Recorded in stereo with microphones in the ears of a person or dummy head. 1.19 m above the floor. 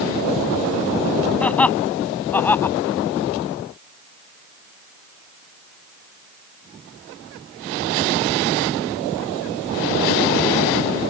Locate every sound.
1.4 s laughter: 10° left (ahead or behind); by 2.8 s 15° left (ahead or behind)